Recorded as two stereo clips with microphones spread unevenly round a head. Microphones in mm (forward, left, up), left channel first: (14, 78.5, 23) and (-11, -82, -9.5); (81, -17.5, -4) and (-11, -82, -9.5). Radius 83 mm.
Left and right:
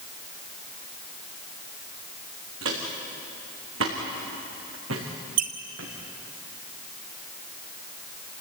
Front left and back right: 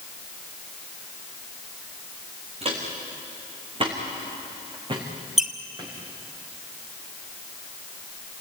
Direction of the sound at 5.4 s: 55° right.